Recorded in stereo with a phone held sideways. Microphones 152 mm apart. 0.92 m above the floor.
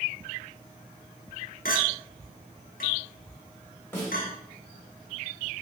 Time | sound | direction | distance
1.6 | a clink | 80° left | 0.9 m
3.9 | a snare drum | 15° left (ahead or behind) | 1.6 m